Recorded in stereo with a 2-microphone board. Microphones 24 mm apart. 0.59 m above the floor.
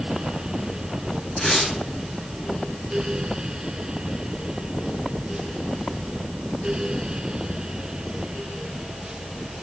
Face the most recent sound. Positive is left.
turn(degrees=15)  # may be behind; listen again after turning